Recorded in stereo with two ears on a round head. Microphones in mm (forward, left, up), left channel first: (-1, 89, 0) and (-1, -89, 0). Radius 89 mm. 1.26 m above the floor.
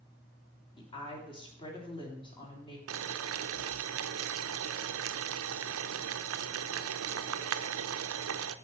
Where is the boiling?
75° right (ahead or behind), 0.6 m.